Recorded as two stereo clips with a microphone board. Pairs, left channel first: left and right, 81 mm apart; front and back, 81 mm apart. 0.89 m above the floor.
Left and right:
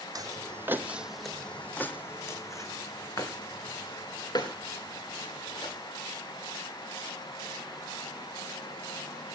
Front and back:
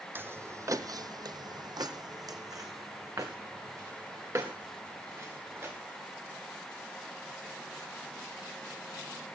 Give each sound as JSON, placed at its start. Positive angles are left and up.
{"t": 0.1, "sound": "footsteps", "azimuth_deg": -120, "distance_m": 1.6}